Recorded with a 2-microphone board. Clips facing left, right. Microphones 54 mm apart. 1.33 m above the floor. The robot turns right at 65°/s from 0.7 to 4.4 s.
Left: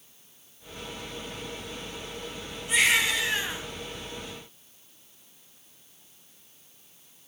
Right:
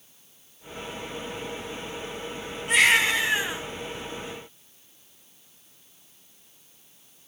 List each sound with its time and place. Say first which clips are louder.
2.7 s a baby crying: right 4 dB; 60° right, 3.5 m; by 3.6 s straight ahead, 3.5 m